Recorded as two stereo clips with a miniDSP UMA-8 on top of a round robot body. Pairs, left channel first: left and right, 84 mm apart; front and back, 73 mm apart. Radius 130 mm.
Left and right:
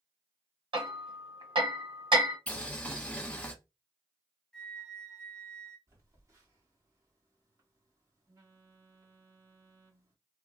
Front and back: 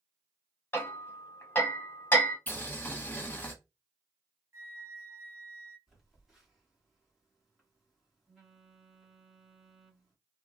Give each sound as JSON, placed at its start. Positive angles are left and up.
{"t": 0.7, "sound": "hammering", "azimuth_deg": -65, "distance_m": 1.4}
{"t": 2.5, "sound": "boiling", "azimuth_deg": 30, "distance_m": 1.1}
{"t": 4.5, "sound": "a flute", "azimuth_deg": 165, "distance_m": 1.1}
{"t": 5.9, "sound": "a phone buzzing", "azimuth_deg": -100, "distance_m": 1.6}